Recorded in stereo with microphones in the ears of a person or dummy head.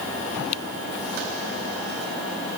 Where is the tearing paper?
No tearing paper in this recording.